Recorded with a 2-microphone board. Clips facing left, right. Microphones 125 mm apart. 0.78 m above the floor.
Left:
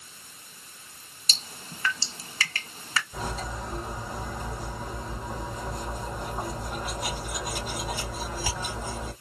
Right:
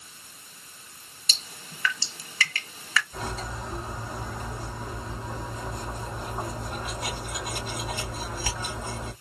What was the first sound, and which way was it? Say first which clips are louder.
Dripping: left 1 dB; 30° left (ahead or behind).